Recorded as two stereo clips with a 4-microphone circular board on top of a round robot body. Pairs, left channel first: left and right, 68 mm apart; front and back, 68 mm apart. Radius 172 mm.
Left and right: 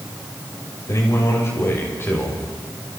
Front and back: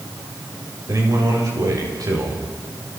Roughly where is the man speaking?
Behind left.